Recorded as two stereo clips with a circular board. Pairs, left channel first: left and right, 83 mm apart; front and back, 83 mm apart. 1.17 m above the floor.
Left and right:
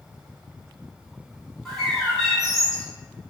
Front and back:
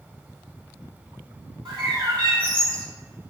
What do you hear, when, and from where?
1.6 s a bird: 175° left, 1.7 m